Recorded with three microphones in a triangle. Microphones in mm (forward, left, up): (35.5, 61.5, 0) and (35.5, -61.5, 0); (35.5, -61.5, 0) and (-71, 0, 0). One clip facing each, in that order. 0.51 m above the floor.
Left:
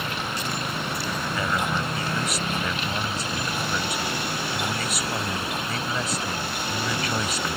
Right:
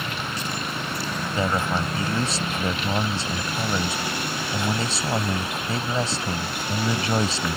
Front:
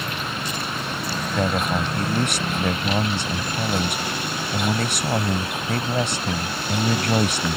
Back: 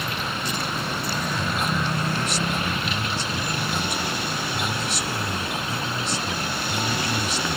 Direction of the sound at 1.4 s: 30° right.